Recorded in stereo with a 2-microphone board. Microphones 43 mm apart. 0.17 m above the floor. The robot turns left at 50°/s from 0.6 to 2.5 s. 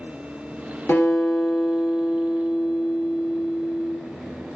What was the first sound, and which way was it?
A guitar, 70° left.